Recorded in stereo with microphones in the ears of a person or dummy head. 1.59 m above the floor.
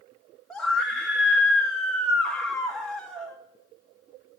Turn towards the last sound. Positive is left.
turn(degrees=5)  # may be behind; listen again after turning